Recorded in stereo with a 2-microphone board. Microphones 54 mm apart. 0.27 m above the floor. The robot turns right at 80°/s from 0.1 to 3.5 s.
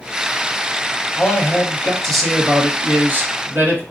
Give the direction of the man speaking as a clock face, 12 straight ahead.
9 o'clock.